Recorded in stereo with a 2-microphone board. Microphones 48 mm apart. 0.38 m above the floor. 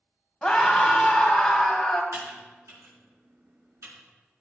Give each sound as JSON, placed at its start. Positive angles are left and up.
{"t": 0.4, "sound": "a scream", "side_deg": 5, "distance_m": 2.0}
{"t": 2.1, "sound": "typing on a keyboard", "side_deg": -70, "distance_m": 4.5}